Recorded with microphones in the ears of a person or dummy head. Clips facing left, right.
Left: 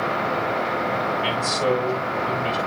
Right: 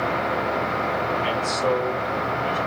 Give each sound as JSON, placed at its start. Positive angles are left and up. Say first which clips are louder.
{"t": 1.2, "sound": "a man speaking", "louder": "left 1 dB", "side_deg": 55, "distance_m": 7.5}